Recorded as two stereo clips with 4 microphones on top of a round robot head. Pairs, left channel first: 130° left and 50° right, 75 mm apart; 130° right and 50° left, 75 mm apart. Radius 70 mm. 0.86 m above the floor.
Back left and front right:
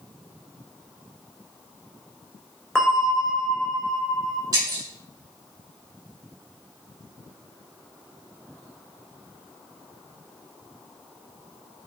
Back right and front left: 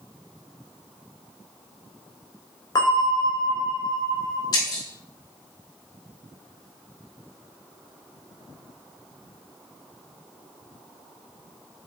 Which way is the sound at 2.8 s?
150° right.